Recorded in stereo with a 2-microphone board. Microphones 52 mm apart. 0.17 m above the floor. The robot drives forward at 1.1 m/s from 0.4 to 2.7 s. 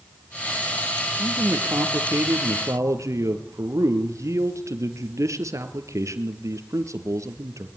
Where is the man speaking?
55° right (ahead or behind), 4.5 m; by 7.7 s 70° right (ahead or behind), 4 m.